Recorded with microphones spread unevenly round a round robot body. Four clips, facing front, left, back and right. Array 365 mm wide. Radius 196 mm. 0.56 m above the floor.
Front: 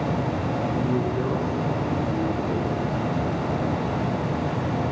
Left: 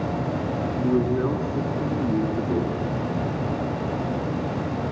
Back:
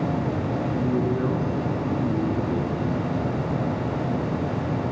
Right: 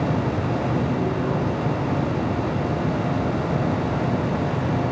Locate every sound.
0.8 s a man speaking: 130° left, 8.5 m